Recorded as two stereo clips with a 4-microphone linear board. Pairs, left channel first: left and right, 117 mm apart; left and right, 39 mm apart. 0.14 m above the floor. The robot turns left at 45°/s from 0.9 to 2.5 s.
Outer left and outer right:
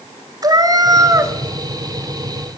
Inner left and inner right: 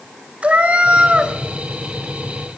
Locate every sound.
0.4 s a cat meowing: 35° right (ahead or behind), 0.7 m; by 1.3 s 25° right (ahead or behind), 0.7 m